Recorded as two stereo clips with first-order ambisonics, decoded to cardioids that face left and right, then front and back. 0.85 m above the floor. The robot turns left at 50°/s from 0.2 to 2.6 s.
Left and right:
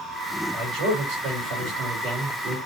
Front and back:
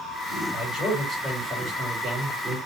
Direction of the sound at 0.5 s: 60° right.